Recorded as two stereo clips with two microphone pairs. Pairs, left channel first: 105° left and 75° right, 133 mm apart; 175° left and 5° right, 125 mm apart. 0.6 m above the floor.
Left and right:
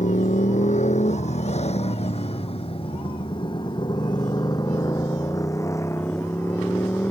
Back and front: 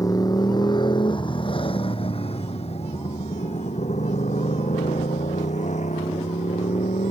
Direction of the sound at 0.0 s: 120° left.